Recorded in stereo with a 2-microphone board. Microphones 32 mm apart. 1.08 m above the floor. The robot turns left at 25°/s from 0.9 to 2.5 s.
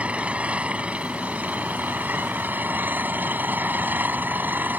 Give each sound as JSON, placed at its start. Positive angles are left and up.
{"t": 0.0, "sound": "an engine running", "azimuth_deg": -45}